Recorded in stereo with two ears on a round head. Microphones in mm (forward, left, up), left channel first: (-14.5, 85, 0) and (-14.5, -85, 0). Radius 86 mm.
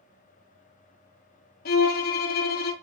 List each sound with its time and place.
1.6 s a violin: 50° left (ahead or behind), 0.6 m